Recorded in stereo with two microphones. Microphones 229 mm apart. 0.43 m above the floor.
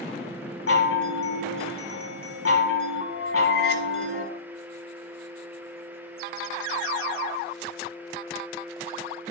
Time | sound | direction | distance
0.7 | a chime | 80° left | 1.0 m